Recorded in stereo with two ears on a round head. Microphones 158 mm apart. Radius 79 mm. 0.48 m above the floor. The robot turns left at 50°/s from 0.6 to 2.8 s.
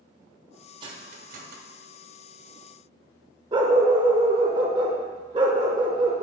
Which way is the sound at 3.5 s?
25° right (ahead or behind).